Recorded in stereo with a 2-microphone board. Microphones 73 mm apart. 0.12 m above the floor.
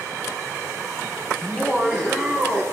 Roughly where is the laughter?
Centre.